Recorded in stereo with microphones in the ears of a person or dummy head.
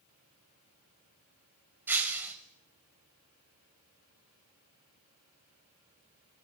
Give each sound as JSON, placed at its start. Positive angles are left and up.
{"t": 1.9, "sound": "breaking glass", "side_deg": -10, "distance_m": 1.9}